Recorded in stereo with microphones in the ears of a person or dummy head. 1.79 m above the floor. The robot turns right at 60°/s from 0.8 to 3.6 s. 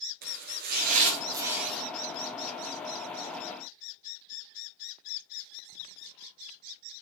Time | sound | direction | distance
0.2 | chopping | 55° right | 5 m